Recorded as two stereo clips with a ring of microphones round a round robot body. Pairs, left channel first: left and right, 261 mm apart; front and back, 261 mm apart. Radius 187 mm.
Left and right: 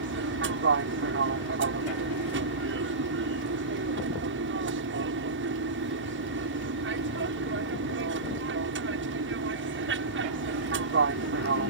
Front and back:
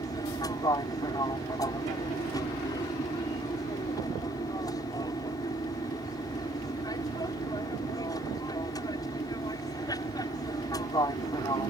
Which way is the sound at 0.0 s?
75° right.